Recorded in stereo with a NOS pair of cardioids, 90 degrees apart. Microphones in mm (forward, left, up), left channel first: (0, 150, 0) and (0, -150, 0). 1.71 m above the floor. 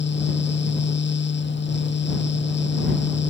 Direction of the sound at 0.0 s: 35° left.